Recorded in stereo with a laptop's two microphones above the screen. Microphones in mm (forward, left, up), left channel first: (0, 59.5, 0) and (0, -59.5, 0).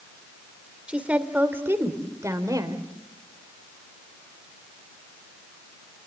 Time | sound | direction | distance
0.9 | a woman speaking | 10° right (ahead or behind) | 3 m